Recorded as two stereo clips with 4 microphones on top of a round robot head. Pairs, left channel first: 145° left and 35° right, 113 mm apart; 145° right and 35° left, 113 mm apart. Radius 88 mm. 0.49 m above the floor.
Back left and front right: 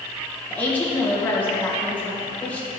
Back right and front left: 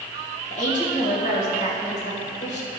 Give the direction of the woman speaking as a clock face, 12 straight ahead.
5 o'clock.